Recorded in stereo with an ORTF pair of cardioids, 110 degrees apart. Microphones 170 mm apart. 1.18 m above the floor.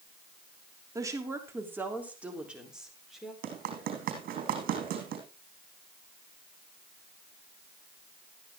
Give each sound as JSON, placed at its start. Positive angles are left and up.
{"t": 0.9, "sound": "a woman speaking", "azimuth_deg": -20, "distance_m": 3.0}
{"t": 3.4, "sound": "running footsteps", "azimuth_deg": -65, "distance_m": 3.5}